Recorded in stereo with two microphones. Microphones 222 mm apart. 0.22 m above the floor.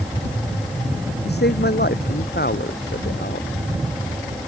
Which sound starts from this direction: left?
A man speaking, at 1.3 s.